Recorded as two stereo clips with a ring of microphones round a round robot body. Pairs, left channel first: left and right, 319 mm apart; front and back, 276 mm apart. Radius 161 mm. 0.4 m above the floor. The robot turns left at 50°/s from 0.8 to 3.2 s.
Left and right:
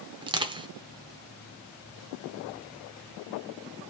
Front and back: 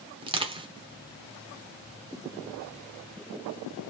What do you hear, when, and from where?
0.2 s crushing: 140° right, 0.7 m